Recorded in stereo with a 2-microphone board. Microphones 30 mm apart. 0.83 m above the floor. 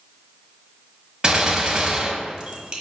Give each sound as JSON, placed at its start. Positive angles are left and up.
{"t": 1.2, "sound": "a gunshot", "side_deg": -30, "distance_m": 1.3}